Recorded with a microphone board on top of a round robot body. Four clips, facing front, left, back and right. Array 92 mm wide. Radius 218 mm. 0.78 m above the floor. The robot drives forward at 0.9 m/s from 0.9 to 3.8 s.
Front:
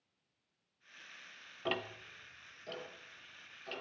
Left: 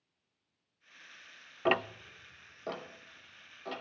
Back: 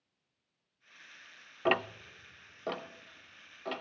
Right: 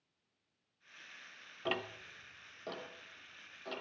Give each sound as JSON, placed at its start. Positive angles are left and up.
{"t": 1.6, "sound": "ticking", "azimuth_deg": 130, "distance_m": 0.7}